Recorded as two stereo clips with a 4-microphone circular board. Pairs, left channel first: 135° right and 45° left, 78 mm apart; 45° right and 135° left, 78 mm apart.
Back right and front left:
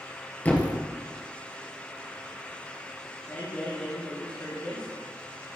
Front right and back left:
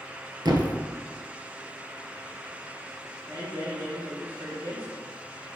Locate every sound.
0.5 s a thud: 160° left, 1.6 m
3.3 s a man speaking: 175° left, 2.5 m